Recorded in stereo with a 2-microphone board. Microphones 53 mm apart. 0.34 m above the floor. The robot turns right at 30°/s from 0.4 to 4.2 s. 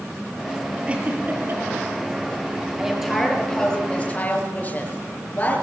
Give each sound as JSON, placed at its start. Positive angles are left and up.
{"t": 0.9, "sound": "a giggle", "side_deg": -20, "distance_m": 5.5}
{"t": 2.8, "sound": "a woman speaking", "azimuth_deg": -15, "distance_m": 6.5}